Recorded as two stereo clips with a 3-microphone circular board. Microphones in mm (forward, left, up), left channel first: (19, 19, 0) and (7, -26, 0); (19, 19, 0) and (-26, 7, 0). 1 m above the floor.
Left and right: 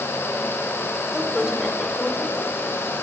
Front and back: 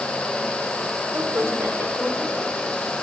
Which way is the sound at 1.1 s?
175° left.